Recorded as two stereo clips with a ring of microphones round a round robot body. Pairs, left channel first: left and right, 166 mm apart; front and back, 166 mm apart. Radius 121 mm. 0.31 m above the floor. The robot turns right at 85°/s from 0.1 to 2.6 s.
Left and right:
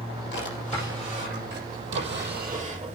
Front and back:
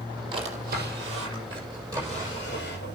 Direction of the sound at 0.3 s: 120° left.